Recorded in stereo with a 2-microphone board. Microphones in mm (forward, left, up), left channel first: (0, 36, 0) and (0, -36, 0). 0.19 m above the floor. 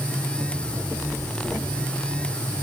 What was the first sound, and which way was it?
Only background noise.